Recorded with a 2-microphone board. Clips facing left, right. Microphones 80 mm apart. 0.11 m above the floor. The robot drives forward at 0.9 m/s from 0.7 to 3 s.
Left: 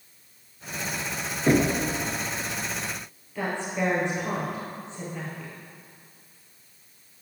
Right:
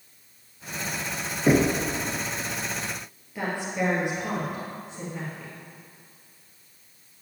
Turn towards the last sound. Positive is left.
turn(degrees=-10)  # may be behind; listen again after turning